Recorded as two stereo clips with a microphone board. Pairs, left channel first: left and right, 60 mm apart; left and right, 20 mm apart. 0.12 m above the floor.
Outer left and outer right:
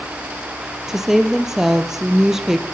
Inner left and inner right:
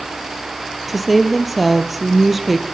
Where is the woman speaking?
5° right (ahead or behind), 2.5 m.